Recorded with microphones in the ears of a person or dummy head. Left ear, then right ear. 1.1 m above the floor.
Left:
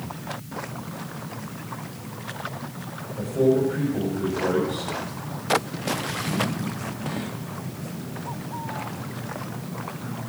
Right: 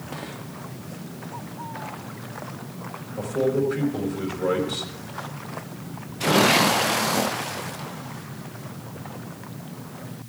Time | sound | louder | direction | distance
3.2 | a man speaking | left 2 dB | 75° right (ahead or behind) | 4.5 m